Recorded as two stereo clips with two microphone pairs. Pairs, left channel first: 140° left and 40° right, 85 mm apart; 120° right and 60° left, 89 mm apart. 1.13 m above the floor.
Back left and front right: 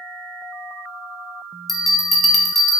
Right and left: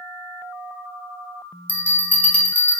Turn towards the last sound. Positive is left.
turn(degrees=-135)